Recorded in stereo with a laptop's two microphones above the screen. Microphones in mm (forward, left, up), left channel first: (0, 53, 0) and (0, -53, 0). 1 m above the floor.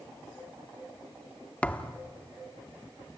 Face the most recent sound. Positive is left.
turn(degrees=10)  # may be behind; listen again after turning